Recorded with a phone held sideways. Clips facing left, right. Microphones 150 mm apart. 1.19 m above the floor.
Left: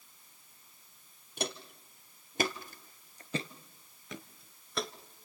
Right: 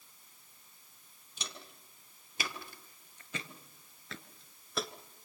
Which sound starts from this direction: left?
Footsteps, at 1.4 s.